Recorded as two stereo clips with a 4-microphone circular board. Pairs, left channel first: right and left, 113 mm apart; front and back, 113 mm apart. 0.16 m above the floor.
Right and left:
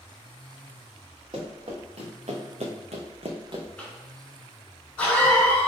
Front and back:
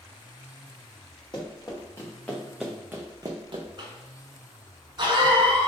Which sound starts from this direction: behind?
A cough, at 3.8 s.